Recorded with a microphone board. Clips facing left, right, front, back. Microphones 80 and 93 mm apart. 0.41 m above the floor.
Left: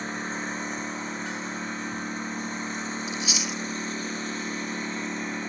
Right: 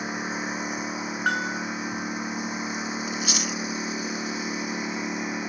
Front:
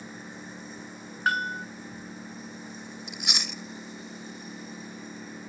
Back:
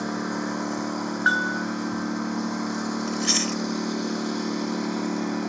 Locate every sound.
0.0 s a lawn mower: 170° right
1.3 s a bell: 115° right
3.1 s chewing: 70° right